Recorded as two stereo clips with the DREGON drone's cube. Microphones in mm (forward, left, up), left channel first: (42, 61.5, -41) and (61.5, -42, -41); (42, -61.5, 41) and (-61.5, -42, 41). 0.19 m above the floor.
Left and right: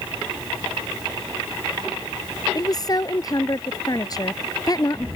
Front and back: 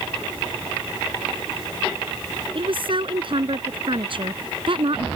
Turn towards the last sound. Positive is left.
turn(degrees=150)